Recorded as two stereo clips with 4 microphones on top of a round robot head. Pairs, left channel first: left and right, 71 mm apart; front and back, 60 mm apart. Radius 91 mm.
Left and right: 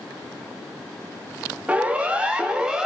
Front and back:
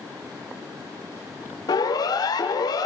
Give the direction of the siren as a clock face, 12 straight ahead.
1 o'clock.